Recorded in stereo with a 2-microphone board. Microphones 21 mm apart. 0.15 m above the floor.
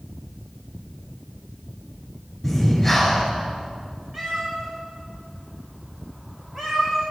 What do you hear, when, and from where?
2.4 s breathing: 5° right (ahead or behind), 2.5 m
4.1 s a cat meowing: 40° right (ahead or behind), 4 m